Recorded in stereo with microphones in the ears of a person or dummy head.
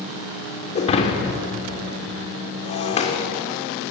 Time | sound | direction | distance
0.8 | breaking glass | 35° left (ahead or behind) | 3.5 m